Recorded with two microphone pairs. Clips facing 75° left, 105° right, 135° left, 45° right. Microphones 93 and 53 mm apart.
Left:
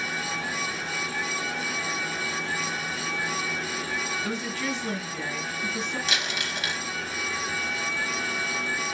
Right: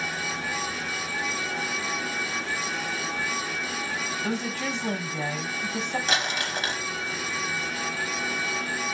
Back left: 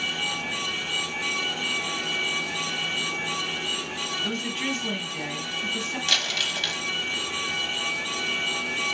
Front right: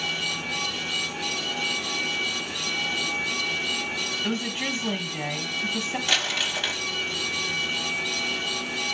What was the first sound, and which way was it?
A woman speaking, 110° right.